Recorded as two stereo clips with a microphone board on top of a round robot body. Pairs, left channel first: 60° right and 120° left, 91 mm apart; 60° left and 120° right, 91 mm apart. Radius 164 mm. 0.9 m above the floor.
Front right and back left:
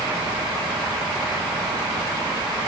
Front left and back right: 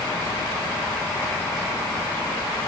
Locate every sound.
Only background noise.